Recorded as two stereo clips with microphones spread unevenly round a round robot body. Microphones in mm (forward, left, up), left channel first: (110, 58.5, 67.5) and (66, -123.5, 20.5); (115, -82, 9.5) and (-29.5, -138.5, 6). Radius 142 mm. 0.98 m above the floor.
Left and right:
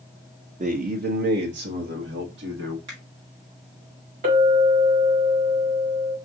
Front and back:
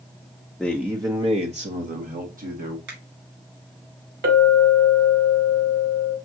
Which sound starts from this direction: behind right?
A clink, at 4.2 s.